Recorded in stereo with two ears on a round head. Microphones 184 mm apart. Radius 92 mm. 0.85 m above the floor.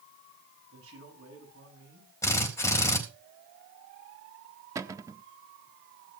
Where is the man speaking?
75° right (ahead or behind), 6.5 m.